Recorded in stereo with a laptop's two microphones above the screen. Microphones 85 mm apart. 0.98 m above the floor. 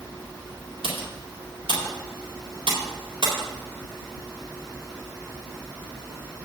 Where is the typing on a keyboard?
85° right, 4 m.